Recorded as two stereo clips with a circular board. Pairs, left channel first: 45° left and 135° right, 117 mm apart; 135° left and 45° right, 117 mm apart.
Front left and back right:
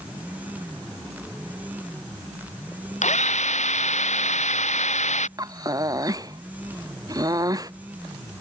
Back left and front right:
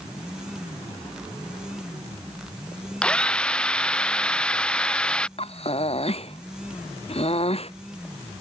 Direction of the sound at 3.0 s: 55° left.